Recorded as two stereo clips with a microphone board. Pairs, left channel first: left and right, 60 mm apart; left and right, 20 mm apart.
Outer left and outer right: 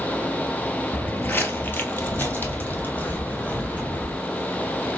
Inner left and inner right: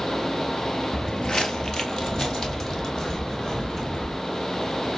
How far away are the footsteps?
About 0.9 m.